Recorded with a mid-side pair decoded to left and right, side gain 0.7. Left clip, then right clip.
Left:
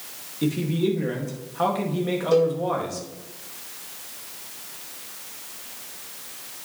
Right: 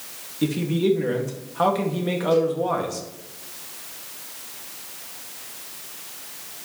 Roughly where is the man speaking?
Ahead.